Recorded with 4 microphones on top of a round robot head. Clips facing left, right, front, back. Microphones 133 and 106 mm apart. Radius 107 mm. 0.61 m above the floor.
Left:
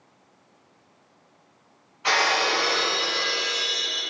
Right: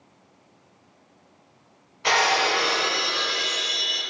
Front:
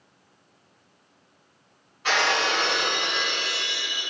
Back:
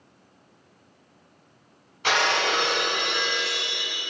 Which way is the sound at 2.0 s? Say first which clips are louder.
Right 2 dB, even; 155° right.